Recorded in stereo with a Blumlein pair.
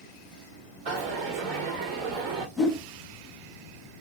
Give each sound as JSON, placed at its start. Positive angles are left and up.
{"t": 0.9, "sound": "a dropped coin", "azimuth_deg": -35, "distance_m": 2.0}
{"t": 2.6, "sound": "a whoosh", "azimuth_deg": -5, "distance_m": 4.5}